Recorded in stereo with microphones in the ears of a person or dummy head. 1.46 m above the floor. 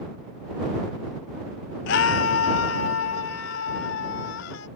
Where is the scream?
65° left (ahead or behind); by 4.7 s 75° left (ahead or behind).